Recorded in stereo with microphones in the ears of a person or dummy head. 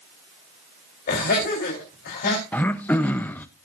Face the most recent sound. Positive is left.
turn(degrees=10)  # may be behind; listen again after turning